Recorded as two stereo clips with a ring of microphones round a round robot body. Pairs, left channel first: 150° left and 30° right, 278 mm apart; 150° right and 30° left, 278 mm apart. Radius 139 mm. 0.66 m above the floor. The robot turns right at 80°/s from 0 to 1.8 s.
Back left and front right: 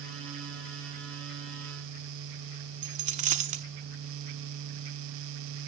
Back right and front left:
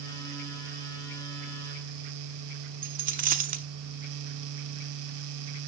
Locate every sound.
2.8 s a dropped coin: 5° left, 0.6 m